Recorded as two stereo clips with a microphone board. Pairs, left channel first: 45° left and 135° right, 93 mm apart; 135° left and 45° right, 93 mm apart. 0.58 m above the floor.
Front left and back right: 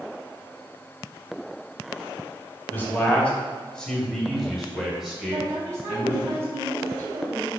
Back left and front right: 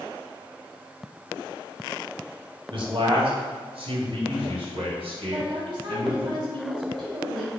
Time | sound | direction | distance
2.7 | a man speaking | 20° right | 1.7 m
5.3 | a woman speaking | 80° right | 2.5 m